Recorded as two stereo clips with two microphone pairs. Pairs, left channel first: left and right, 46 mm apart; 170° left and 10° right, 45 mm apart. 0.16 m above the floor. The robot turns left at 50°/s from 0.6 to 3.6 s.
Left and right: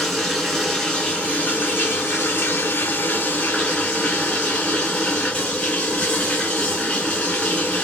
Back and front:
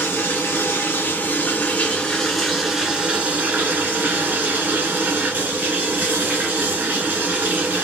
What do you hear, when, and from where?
0.0 s running water: 175° left, 2 m; by 7.8 s 25° left, 2 m